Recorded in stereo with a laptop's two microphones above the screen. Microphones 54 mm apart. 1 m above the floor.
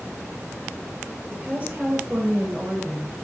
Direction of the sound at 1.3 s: 30° right (ahead or behind).